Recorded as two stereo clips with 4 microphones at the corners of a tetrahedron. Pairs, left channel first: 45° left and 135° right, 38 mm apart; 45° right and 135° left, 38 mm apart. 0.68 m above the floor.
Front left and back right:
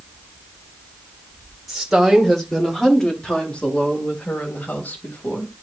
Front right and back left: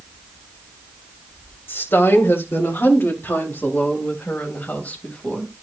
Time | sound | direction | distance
1.7 | a woman speaking | 50° right | 2.5 m